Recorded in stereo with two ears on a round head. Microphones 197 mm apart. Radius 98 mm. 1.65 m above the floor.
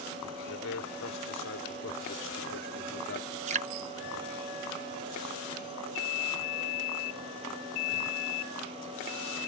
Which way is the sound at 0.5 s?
65° left (ahead or behind).